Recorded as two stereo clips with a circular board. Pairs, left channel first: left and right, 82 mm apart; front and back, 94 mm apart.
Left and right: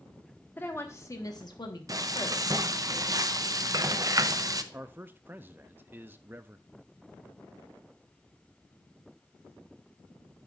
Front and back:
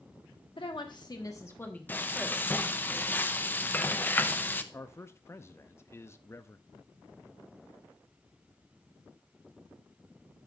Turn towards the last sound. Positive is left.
turn(degrees=-40)